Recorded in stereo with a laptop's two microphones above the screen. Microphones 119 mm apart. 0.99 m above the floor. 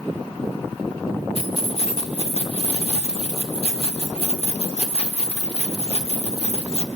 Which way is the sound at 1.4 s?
60° left (ahead or behind).